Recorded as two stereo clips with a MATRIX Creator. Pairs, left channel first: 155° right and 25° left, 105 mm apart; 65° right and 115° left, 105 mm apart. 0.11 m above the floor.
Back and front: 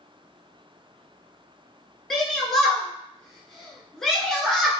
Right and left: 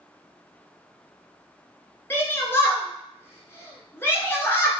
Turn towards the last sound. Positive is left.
turn(degrees=-80)